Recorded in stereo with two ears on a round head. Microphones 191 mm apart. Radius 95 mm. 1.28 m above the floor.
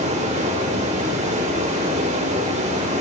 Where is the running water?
35° right (ahead or behind), 2.5 m.